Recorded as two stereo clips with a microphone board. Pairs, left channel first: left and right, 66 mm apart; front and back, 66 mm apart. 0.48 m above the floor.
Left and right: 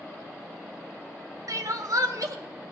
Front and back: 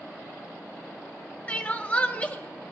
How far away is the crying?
About 1.1 m.